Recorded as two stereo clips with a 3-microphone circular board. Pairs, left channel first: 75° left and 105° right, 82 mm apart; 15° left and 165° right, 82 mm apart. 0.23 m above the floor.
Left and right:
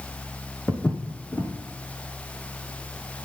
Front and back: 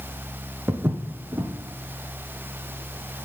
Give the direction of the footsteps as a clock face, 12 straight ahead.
8 o'clock.